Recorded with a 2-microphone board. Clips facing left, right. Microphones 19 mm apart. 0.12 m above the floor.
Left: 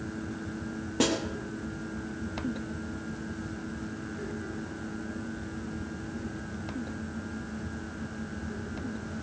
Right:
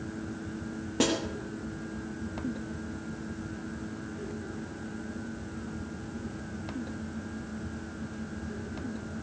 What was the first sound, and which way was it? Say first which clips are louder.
A snare drum: even; 5° right (ahead or behind).